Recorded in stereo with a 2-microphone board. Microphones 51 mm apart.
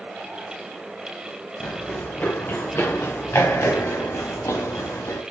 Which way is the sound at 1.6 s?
30° left (ahead or behind).